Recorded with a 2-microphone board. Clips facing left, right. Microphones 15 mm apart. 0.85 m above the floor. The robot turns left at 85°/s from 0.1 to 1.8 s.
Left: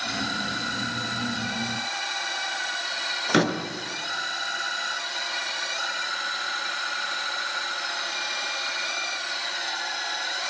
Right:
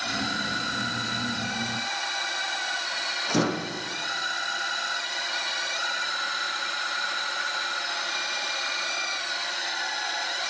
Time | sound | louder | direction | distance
3.3 | a door slam | left 4 dB | 65° left (ahead or behind) | 7.5 m